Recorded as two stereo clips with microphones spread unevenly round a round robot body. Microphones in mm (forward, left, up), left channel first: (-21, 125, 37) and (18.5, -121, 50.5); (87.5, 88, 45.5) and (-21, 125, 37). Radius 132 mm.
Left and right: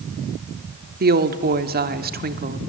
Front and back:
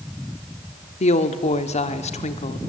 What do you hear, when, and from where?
1.0 s a woman speaking: 30° right, 1.5 m